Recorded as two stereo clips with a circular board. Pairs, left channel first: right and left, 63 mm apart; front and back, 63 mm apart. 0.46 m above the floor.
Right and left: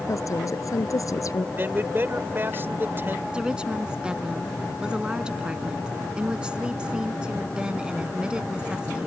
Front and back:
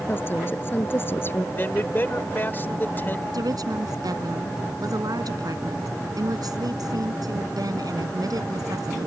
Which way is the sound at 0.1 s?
55° right.